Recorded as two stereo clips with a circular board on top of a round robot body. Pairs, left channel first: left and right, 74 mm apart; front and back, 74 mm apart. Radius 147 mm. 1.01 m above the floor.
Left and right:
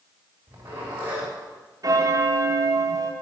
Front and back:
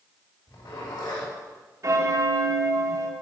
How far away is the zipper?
About 3.5 m.